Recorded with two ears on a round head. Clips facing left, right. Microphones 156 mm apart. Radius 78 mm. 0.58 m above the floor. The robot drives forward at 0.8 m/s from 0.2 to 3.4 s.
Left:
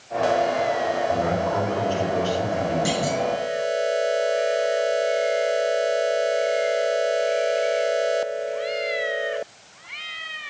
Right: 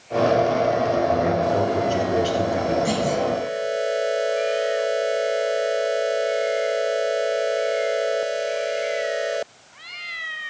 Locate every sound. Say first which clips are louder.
1.1 s a man speaking: right 3 dB; 25° right (ahead or behind), 7 m; by 2.8 s 20° right (ahead or behind), 8.5 m
2.9 s a clunk: right 2 dB; 75° left (ahead or behind), 8 m